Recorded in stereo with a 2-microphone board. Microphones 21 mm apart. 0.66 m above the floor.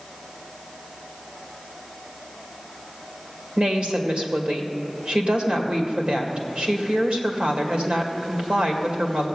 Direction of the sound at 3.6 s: 65° right (ahead or behind).